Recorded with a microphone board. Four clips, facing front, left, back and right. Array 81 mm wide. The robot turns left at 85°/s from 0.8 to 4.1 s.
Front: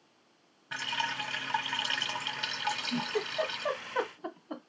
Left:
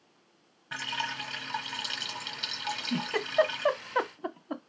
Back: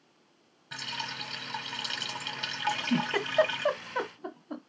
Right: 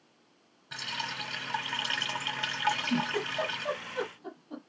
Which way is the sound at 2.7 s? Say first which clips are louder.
Right 3 dB, back 6 dB; 165° right.